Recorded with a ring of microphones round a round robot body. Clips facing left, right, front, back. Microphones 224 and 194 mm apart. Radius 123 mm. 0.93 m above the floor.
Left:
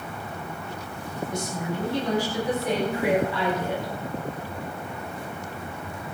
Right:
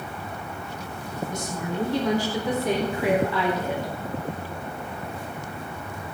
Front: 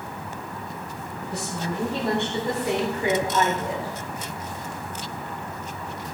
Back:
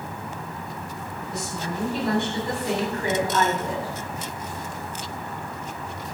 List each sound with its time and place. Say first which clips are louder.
1.3 s a woman speaking: left 1 dB, front 2 dB; 60° right, 5 m; by 4.0 s 90° right, 3.5 m